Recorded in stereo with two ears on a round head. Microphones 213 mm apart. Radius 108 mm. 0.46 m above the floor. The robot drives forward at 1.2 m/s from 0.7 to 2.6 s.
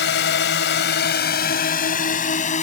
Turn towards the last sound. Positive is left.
turn(degrees=35)  # may be behind; listen again after turning